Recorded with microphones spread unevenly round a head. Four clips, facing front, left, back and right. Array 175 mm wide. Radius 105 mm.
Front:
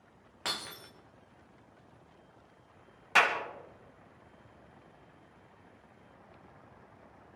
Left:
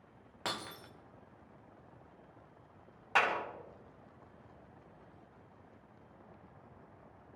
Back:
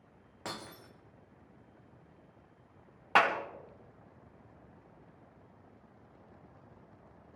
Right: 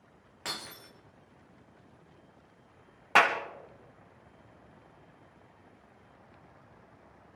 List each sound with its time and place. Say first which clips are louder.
0.5 s breaking glass: left 2 dB, front 2 dB; 110° left, 1.1 m
3.1 s a clap: right 7 dB, back 1 dB; 115° right, 2 m